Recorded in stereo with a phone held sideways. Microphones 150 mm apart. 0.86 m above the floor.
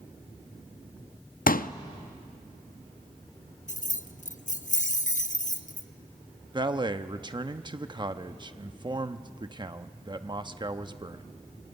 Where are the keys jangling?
55° left (ahead or behind), 0.9 m.